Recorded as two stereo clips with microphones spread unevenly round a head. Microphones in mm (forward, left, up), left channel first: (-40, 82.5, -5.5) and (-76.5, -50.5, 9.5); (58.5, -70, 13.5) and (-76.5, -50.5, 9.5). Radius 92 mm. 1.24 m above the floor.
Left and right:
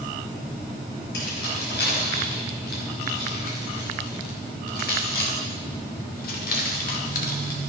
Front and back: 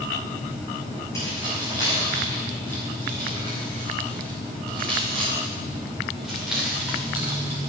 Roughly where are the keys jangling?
Ahead left.